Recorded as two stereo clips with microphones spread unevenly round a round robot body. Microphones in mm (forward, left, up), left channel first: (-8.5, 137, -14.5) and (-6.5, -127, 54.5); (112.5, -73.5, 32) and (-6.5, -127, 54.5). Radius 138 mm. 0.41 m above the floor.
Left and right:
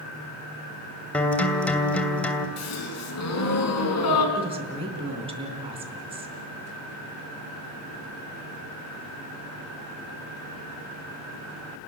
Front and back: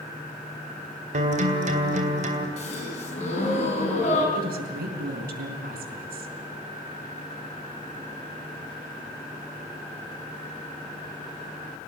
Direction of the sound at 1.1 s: 165° left.